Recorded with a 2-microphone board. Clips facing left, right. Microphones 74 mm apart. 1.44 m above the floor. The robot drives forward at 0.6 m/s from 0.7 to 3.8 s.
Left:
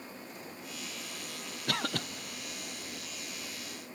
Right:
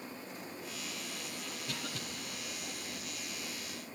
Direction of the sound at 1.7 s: 65° left (ahead or behind).